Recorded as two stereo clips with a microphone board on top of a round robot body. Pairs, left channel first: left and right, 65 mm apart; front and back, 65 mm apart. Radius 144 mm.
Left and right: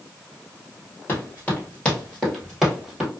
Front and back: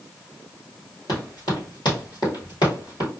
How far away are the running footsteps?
About 1.6 m.